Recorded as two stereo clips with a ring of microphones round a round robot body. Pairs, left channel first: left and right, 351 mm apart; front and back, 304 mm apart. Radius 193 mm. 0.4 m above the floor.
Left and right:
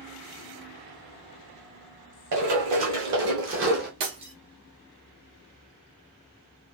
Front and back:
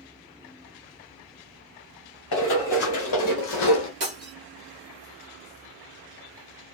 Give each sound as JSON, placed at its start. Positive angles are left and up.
{"t": 2.3, "sound": "running footsteps", "azimuth_deg": -50, "distance_m": 1.5}
{"t": 4.0, "sound": "breaking glass", "azimuth_deg": -125, "distance_m": 1.1}